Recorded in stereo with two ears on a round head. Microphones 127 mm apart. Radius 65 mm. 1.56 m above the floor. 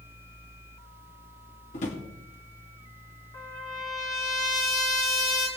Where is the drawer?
50° left (ahead or behind), 2 m.